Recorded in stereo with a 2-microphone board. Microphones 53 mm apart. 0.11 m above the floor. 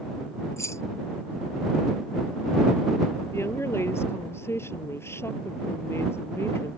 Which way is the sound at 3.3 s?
55° left (ahead or behind).